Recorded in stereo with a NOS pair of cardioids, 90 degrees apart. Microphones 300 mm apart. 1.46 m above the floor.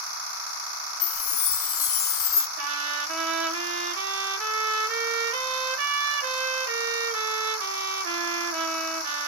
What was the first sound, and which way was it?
A chime, 50° left.